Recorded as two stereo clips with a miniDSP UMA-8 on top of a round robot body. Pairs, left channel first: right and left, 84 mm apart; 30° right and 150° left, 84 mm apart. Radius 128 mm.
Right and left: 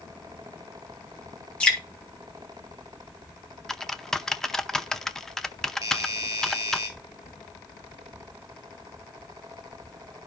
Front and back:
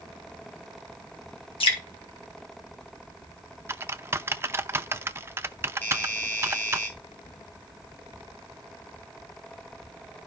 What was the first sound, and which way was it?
Dripping, 10° right.